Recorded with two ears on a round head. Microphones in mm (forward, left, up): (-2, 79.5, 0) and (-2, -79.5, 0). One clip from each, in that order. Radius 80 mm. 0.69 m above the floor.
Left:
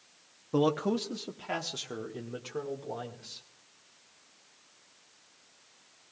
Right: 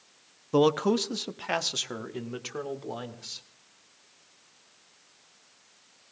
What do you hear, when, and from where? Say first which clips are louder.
0.5 s a man speaking: right 5 dB; 25° right (ahead or behind), 0.6 m; by 3.5 s 60° right (ahead or behind), 2 m